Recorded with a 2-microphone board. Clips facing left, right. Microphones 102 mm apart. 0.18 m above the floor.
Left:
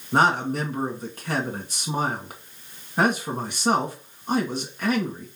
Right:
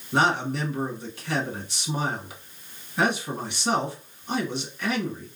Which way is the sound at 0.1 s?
45° left (ahead or behind).